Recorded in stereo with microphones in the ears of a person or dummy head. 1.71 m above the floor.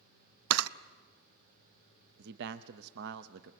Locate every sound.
0.5 s a camera shutter: 85° right, 0.6 m
2.2 s a man speaking: 65° right (ahead or behind), 0.8 m